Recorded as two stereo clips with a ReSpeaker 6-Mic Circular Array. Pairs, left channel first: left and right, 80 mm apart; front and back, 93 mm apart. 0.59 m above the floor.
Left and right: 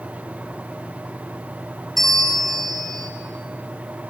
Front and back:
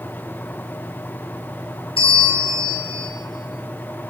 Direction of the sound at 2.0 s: 5° left.